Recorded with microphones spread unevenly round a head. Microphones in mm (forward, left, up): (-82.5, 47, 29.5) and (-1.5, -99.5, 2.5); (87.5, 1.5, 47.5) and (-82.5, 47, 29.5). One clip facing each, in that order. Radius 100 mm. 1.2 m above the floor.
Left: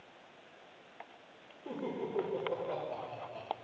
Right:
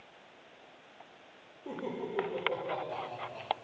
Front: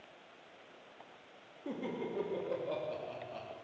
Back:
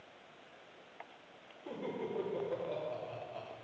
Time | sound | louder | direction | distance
1.6 | laughter | even, front 1 dB | 25° left | 3 m